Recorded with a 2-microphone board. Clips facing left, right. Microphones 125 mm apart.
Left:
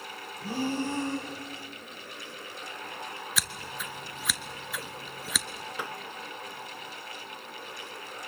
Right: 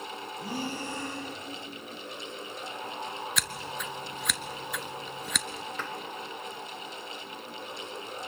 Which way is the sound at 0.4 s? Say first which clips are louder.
Left 6 dB; 15° right (ahead or behind).